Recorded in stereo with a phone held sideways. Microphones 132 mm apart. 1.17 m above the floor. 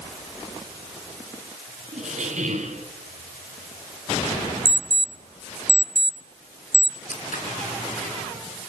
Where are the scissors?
75° left (ahead or behind), 4 m.